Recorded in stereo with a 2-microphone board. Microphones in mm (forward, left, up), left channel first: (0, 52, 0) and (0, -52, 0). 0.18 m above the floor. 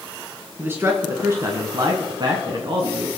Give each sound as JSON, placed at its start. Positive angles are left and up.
{"t": 0.6, "sound": "a man speaking", "side_deg": -20, "distance_m": 1.9}